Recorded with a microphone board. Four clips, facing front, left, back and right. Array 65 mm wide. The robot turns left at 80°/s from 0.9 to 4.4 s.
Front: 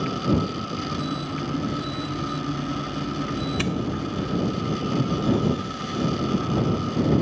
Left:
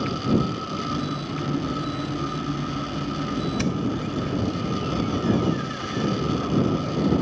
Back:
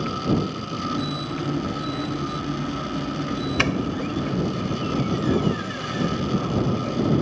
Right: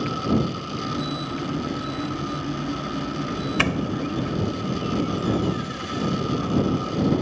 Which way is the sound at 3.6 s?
130° right.